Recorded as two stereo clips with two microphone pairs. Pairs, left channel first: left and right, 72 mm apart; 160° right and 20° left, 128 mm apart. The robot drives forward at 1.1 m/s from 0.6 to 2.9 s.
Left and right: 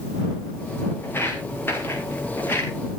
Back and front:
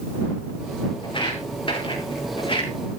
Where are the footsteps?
150° left, 6 m.